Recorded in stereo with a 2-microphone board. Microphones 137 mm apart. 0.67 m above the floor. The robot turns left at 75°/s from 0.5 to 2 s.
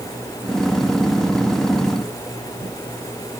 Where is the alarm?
I don't hear an alarm.